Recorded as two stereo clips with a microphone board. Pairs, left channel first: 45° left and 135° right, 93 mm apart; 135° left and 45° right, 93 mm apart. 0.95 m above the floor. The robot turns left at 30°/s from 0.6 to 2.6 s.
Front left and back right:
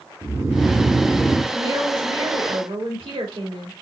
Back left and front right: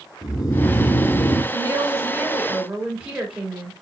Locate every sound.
0.2 s snoring: 170° left, 0.9 m; by 1.4 s 145° left, 0.9 m
1.5 s a woman speaking: 90° right, 2.5 m; by 3.7 s 125° right, 2.5 m